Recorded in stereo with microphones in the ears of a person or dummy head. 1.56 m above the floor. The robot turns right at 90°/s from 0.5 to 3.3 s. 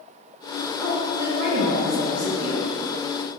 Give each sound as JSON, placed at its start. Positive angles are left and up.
{"t": 0.8, "sound": "a woman speaking", "azimuth_deg": 175, "distance_m": 1.3}